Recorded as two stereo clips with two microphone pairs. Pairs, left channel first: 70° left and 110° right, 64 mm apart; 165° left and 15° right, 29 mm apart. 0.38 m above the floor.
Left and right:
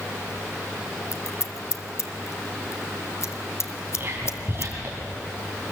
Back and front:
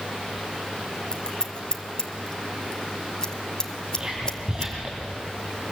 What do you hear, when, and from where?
1.1 s scissors: 105° left, 1.2 m
3.9 s whispering: 60° right, 3 m